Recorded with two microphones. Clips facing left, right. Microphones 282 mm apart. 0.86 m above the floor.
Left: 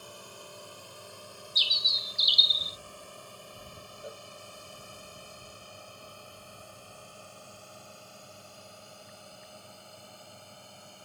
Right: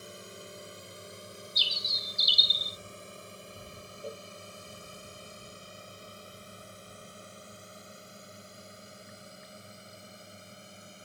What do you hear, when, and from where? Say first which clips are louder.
0.0 s a drone: right 2 dB; 25° right (ahead or behind); by 11.1 s 20° right (ahead or behind)
1.6 s a bird: right 2 dB; 65° right (ahead or behind)
4.0 s a cowbell: right 4 dB; 40° right (ahead or behind)